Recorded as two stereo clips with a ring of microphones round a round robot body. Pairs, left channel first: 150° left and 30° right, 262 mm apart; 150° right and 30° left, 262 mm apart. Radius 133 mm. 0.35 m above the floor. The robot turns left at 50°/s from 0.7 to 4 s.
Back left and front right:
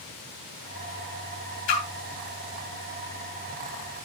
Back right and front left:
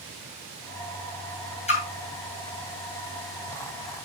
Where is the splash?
145° left, 2.5 m; by 1.8 s 140° left, 2.5 m.